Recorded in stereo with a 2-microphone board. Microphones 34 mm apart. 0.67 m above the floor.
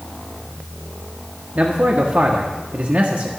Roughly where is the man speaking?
Right.